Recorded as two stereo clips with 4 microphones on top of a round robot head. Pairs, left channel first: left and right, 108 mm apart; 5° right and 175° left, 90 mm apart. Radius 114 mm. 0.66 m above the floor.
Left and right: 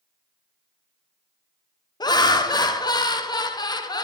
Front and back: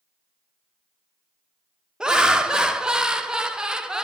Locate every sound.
2.0 s laughter: 100° left, 0.7 m